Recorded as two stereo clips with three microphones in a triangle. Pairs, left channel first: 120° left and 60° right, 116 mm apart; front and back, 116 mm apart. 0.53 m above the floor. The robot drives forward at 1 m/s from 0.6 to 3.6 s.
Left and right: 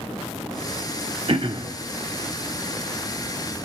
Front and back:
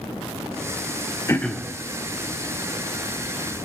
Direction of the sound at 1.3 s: 55° right.